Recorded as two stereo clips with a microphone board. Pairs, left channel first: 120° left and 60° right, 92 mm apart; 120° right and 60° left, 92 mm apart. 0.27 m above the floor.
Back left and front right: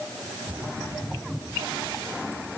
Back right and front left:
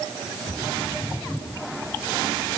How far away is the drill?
No drill in this recording.